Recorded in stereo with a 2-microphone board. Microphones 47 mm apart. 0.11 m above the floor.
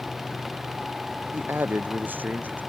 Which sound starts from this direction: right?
A man speaking, at 1.3 s.